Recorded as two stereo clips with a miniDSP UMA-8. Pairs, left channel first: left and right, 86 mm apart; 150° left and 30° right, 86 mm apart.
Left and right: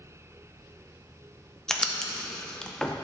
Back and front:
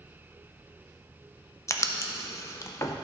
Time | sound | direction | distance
1.7 | writing | 170° left | 0.5 m